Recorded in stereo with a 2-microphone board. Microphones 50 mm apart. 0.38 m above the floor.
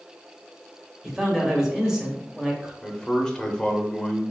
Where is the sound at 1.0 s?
10° right (ahead or behind), 1.6 m.